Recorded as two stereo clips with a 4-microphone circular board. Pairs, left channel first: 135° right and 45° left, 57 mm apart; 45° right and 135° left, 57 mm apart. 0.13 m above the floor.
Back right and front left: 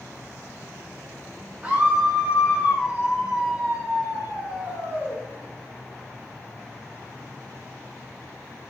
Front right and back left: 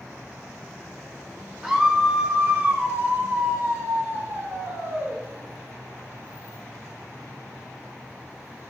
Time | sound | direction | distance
1.6 | a scream | 60° left | 1.3 m